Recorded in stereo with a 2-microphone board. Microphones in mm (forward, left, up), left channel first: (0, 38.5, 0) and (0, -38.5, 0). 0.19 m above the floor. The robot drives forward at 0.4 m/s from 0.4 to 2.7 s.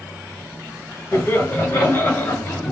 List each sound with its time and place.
1.1 s laughter: 25° left (ahead or behind), 1.4 m; by 2.7 s 20° left (ahead or behind), 1.7 m